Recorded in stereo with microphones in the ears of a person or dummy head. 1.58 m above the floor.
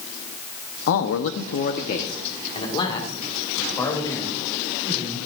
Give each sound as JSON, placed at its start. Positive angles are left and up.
{"t": 0.9, "sound": "a man speaking", "side_deg": 70, "distance_m": 0.8}